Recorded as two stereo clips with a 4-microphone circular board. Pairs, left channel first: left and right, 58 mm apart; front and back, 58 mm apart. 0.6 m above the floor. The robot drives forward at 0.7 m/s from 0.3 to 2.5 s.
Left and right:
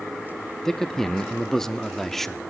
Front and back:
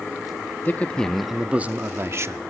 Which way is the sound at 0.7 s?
15° left.